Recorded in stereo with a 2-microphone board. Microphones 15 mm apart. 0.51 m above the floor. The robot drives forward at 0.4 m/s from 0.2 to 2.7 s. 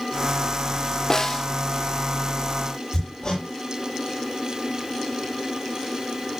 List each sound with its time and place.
1.1 s a snare drum: 30° left (ahead or behind), 0.9 m; by 1.5 s 25° left (ahead or behind), 1.0 m
2.9 s hammering: 40° left (ahead or behind), 8 m